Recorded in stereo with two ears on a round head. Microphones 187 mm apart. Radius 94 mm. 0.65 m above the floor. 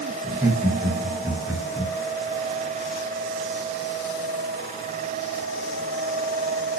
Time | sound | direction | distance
0.2 | laughter | 5° right (ahead or behind) | 8 m